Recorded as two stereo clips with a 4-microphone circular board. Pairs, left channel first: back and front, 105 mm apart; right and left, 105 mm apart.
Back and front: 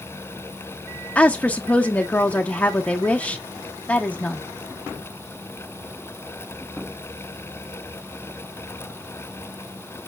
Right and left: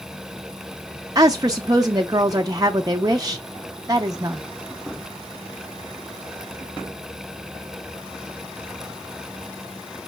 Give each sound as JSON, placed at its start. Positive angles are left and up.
{"t": 1.1, "sound": "a woman speaking", "azimuth_deg": 110, "distance_m": 0.5}